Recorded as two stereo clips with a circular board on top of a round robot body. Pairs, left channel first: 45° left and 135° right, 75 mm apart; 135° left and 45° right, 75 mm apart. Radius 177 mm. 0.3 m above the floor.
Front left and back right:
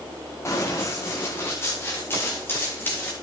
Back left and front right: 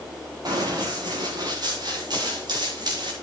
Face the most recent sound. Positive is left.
turn(degrees=-20)